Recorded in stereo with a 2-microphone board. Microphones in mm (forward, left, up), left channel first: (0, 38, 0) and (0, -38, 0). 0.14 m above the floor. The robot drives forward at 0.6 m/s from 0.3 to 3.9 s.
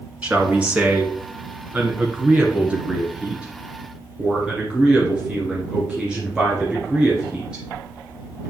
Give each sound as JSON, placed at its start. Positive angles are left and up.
{"t": 0.2, "sound": "a man speaking", "side_deg": -15, "distance_m": 1.4}